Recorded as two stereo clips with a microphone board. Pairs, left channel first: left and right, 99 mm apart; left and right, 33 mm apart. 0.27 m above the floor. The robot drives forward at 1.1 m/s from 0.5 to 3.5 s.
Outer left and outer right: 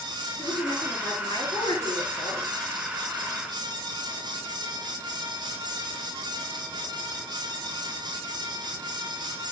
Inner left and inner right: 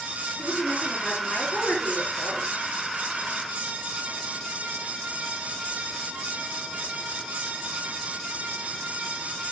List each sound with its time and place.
0.4 s a woman speaking: 35° left (ahead or behind), 6 m; by 2.5 s 50° left (ahead or behind), 4.5 m